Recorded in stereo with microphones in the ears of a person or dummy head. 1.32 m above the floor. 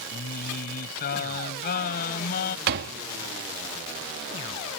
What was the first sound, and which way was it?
Singing, 55° left (ahead or behind).